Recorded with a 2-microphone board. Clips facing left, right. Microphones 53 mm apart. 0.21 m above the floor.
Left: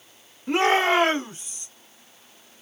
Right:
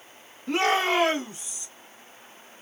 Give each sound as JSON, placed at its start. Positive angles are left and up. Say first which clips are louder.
{"t": 0.5, "sound": "a shout", "louder": "left 3 dB", "side_deg": 20, "distance_m": 1.2}